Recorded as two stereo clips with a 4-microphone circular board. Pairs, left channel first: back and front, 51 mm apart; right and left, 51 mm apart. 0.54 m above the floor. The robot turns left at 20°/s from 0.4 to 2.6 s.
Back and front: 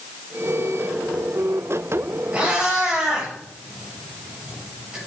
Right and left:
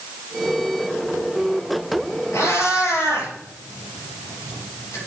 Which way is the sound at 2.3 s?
65° right.